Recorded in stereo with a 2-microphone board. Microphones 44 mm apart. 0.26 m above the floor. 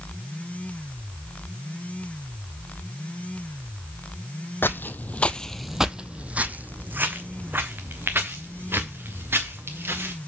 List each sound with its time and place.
4.6 s footsteps: 60° left (ahead or behind), 0.7 m; by 10.1 s 70° right (ahead or behind), 3 m